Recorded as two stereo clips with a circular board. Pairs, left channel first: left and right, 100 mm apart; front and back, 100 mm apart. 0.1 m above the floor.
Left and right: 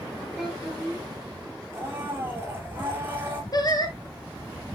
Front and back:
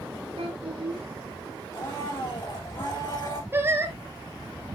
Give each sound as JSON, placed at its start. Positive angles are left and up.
{"t": 0.4, "sound": "a child speaking", "azimuth_deg": -175, "distance_m": 3.0}
{"t": 1.7, "sound": "a blender", "azimuth_deg": -30, "distance_m": 3.0}
{"t": 3.5, "sound": "singing", "azimuth_deg": 120, "distance_m": 1.2}